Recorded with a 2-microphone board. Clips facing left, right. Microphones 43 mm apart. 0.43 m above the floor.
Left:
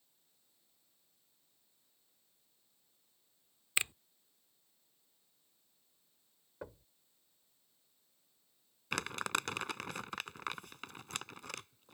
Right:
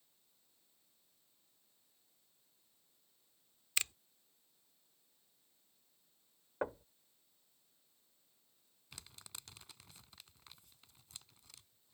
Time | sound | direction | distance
3.8 | a finger snap | 20° left (ahead or behind) | ?
6.6 | knocking | 50° right (ahead or behind) | ?
8.9 | crumpling | 70° left (ahead or behind) | ?